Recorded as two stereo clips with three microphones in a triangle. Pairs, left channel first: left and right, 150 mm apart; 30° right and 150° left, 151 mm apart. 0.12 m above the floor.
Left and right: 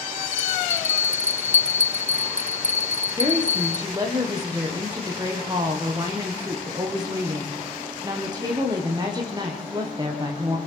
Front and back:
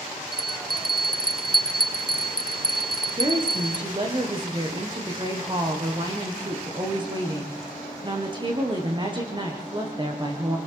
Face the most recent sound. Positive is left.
turn(degrees=-150)